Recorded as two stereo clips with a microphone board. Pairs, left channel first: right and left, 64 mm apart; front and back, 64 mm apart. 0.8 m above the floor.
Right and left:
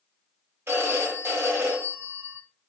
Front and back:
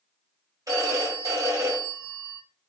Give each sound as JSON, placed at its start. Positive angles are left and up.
{"t": 0.7, "sound": "a phone ringing", "azimuth_deg": 145, "distance_m": 2.0}